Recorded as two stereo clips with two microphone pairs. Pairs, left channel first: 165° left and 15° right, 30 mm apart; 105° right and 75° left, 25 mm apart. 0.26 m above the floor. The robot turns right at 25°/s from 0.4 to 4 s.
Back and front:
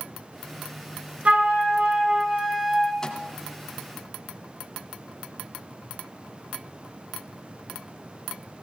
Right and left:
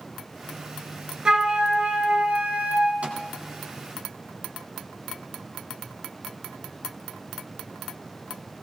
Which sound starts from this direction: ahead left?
A flute, at 1.2 s.